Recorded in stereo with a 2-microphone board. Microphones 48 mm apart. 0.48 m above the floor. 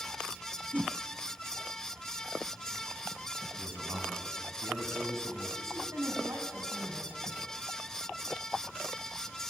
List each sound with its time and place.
0.7 s a whoosh: 35° right (ahead or behind), 0.8 m
3.6 s a man speaking: 70° right (ahead or behind), 4.5 m
5.6 s a woman speaking: 75° right (ahead or behind), 4 m